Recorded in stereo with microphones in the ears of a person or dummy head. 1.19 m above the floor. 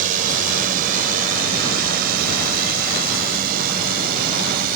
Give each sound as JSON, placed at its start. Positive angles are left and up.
{"t": 0.0, "sound": "a drone", "side_deg": -40}